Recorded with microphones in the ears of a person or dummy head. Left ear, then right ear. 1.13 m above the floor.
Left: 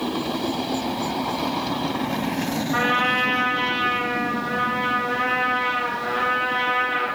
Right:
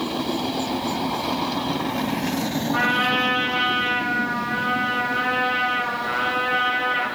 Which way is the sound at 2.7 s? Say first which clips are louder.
Even; 40° left (ahead or behind).